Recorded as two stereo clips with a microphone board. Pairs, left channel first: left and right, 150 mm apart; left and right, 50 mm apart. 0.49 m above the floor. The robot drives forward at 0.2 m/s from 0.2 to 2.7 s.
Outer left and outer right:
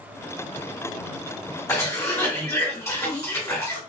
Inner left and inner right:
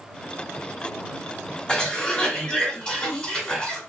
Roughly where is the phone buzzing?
I don't hear a phone buzzing.